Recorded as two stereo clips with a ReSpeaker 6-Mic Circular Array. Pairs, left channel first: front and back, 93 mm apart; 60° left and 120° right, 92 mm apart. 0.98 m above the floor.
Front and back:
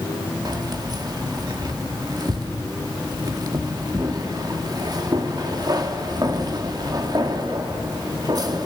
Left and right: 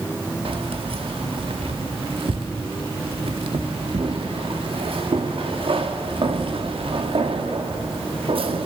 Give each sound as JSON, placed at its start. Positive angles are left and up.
{"t": 0.5, "sound": "keys jangling", "azimuth_deg": -135, "distance_m": 1.4}